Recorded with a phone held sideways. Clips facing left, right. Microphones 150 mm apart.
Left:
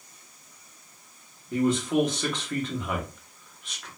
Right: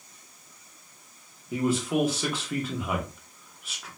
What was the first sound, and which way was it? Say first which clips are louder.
A man speaking: left 2 dB; 5° right (ahead or behind).